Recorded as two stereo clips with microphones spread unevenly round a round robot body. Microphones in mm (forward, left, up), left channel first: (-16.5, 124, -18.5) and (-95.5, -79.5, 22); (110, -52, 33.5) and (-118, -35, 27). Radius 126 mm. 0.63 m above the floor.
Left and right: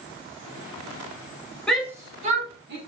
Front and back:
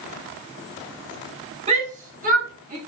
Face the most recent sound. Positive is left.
turn(degrees=-140)